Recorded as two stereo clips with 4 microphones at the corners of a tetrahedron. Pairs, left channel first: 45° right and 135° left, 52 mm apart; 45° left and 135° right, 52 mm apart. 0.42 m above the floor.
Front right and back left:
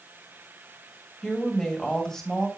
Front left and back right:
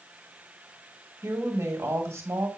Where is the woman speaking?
125° right, 2 m.